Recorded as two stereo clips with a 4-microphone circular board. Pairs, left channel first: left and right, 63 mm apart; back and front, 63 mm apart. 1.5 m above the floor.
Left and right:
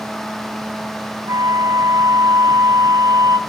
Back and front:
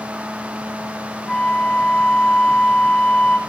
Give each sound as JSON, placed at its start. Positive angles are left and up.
{"t": 1.3, "sound": "a flute", "azimuth_deg": -100, "distance_m": 0.6}